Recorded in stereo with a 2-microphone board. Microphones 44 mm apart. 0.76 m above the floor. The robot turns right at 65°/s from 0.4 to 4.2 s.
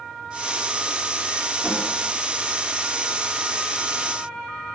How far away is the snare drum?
About 1.9 m.